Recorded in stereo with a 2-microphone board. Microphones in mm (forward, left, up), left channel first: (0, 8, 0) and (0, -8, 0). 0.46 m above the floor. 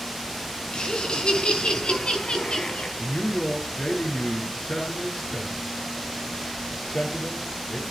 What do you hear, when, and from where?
0.7 s laughter: 65° left (ahead or behind), 5 m
3.0 s a man speaking: 80° left, 7 m